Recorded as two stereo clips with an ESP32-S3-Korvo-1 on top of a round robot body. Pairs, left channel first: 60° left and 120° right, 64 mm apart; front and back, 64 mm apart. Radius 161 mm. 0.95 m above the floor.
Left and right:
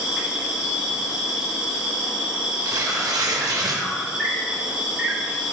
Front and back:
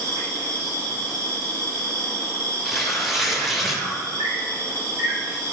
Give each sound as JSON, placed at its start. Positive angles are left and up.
{"t": 0.0, "sound": "an insect", "azimuth_deg": 160, "distance_m": 3.5}
{"t": 2.6, "sound": "tearing paper", "azimuth_deg": -90, "distance_m": 1.0}